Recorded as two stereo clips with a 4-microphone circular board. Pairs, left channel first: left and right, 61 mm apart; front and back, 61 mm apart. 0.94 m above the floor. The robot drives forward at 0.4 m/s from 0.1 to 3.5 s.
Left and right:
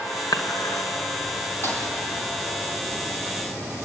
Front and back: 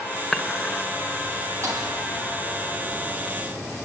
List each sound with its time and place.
0.3 s dishes clattering: 90° left, 2.5 m; by 0.8 s 95° left, 2.5 m
1.6 s a thud: 140° left, 5.5 m